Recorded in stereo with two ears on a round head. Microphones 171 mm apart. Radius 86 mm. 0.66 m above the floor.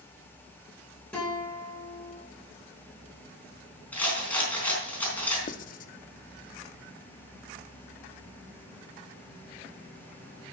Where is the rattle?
10° left (ahead or behind), 4 m.